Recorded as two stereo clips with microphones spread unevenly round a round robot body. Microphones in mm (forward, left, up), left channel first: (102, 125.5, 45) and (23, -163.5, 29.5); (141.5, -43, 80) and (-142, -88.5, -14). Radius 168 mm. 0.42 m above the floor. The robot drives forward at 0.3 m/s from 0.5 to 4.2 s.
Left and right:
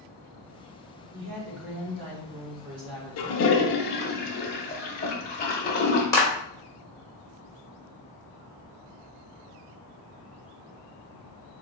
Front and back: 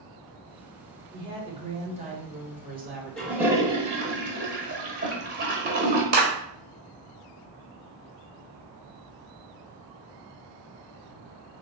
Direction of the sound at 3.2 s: 110° left.